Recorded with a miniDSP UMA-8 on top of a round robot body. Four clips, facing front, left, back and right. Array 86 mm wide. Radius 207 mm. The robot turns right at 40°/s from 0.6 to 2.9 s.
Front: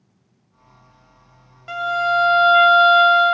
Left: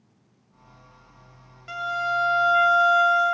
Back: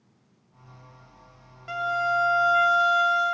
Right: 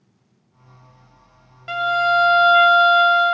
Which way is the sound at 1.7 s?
80° right.